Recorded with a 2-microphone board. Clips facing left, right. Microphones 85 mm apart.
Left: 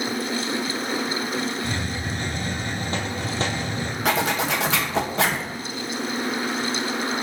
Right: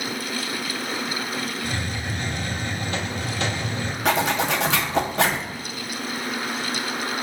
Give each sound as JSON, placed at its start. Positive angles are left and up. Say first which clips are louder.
{"t": 1.6, "sound": "a hiss", "louder": "left 1 dB", "side_deg": 35, "distance_m": 1.0}
{"t": 4.0, "sound": "a zipper", "louder": "right 1 dB", "side_deg": 0, "distance_m": 0.6}